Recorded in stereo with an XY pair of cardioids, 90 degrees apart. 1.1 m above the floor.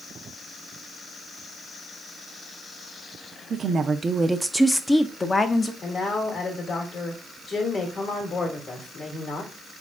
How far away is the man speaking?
About 1.9 m.